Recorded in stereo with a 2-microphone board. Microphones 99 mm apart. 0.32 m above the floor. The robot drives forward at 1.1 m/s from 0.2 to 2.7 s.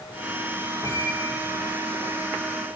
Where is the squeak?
35° left (ahead or behind), 8 m; by 2.3 s 30° left (ahead or behind), 9 m.